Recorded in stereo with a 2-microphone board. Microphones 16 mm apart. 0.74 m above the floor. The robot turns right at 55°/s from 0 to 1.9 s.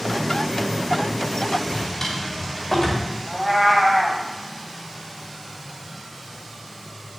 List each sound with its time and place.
1.6 s a drawer: 25° left (ahead or behind), 2 m; by 3.1 s 40° left (ahead or behind), 2 m
3.3 s a cat meowing: 5° right (ahead or behind), 1.2 m